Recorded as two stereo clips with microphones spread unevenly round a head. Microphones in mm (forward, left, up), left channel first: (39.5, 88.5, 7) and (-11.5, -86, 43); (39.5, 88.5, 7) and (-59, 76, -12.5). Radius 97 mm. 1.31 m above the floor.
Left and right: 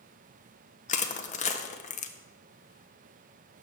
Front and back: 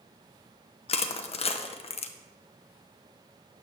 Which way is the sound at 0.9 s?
30° left.